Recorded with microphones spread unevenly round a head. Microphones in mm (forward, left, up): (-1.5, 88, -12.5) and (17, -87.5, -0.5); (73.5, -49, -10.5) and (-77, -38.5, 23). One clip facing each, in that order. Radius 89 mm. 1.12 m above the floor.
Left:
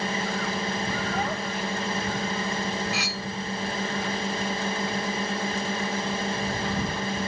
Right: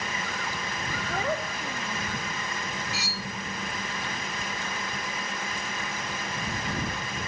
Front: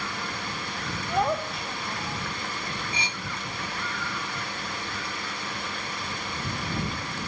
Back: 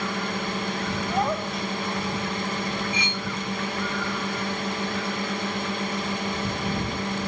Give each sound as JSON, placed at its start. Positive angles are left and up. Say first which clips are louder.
{"t": 0.0, "sound": "a drone", "louder": "left 6 dB, back 6 dB", "azimuth_deg": 140}
{"t": 1.1, "sound": "a child speaking", "louder": "left 1 dB, front 1 dB", "azimuth_deg": -95}
{"t": 2.9, "sound": "cutlery clinking", "louder": "left 4 dB, back 5 dB", "azimuth_deg": 65}